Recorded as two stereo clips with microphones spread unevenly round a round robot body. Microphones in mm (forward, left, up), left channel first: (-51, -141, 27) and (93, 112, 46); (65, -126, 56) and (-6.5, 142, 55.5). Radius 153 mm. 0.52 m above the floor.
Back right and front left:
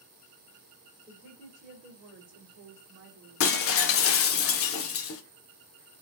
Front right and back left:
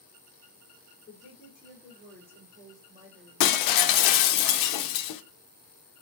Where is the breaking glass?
75° right, 0.5 m.